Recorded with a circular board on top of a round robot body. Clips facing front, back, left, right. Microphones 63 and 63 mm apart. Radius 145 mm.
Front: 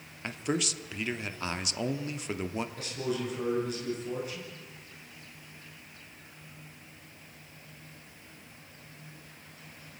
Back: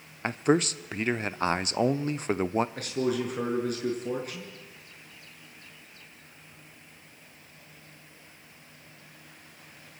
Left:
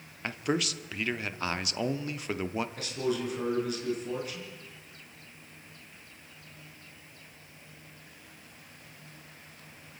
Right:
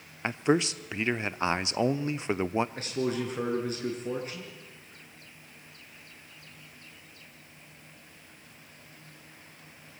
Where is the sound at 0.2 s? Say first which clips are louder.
Back 8 dB, right 5 dB; 145° right, 1.2 m.